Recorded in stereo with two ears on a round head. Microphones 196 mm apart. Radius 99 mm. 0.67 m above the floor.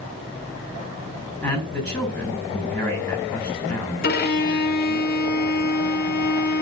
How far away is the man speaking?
About 7.5 m.